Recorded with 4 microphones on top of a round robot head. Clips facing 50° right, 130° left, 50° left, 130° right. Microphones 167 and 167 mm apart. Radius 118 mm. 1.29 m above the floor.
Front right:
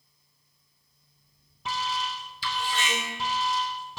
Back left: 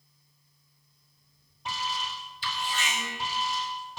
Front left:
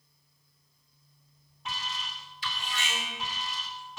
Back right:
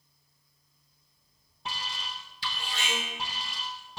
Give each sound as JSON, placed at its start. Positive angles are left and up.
{"t": 1.6, "sound": "an alarm", "azimuth_deg": -70, "distance_m": 2.5}